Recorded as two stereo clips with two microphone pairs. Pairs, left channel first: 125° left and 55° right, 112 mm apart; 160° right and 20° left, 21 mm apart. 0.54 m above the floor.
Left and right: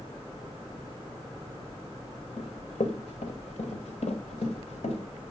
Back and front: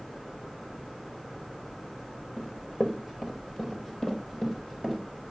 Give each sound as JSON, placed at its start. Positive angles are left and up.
{"t": 2.4, "sound": "running footsteps", "azimuth_deg": 140, "distance_m": 2.0}